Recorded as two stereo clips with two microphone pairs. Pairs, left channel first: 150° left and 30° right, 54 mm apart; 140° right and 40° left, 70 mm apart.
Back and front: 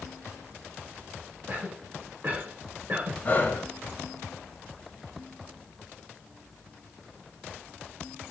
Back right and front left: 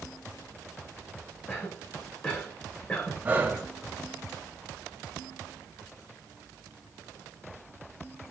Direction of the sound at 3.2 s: 100° left.